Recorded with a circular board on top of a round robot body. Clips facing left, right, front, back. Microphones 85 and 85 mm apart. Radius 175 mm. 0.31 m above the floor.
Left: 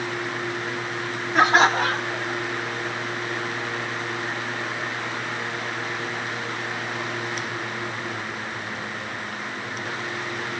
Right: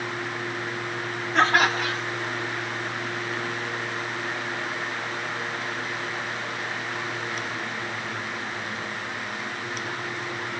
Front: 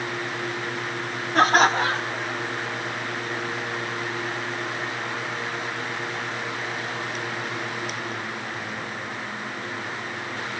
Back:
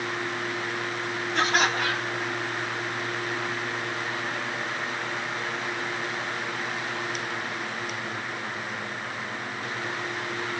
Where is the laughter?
10° left; by 2.4 s 65° left.